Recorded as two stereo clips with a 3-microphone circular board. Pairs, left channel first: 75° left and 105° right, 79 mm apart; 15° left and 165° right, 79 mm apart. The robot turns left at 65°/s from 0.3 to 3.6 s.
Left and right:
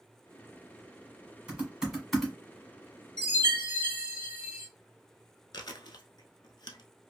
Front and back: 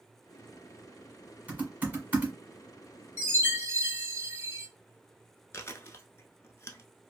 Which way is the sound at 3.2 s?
110° right.